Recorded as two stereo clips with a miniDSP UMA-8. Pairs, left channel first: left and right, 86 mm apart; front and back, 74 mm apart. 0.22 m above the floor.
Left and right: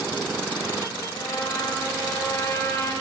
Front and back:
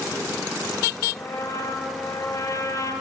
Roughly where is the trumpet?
Ahead left.